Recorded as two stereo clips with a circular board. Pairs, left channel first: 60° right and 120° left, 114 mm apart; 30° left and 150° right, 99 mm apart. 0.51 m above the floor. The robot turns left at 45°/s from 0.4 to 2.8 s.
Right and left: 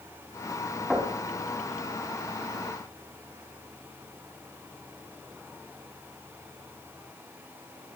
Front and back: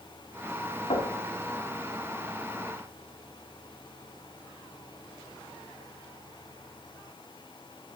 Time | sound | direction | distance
0.9 | knocking | 30° left | 3 m